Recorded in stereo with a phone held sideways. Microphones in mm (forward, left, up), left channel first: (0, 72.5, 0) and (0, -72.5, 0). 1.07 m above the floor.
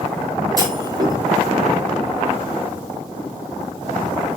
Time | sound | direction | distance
0.6 | a clunk | 25° right (ahead or behind) | 3 m